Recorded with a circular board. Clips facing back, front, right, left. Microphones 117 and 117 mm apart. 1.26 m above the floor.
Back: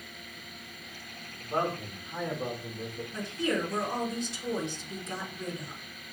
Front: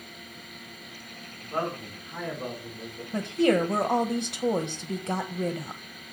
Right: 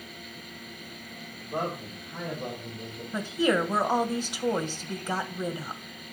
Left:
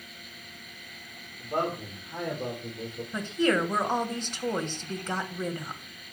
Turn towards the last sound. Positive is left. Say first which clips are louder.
# front 9 dB, right 1 dB
turn(degrees=-10)